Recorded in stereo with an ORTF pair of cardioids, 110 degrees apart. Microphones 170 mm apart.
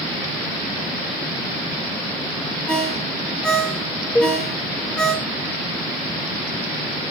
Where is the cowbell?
10° left, 2 m.